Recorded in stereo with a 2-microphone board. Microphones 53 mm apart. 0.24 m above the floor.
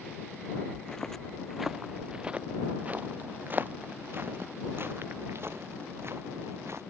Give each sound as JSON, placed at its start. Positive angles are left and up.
{"t": 0.7, "sound": "footsteps", "side_deg": 15}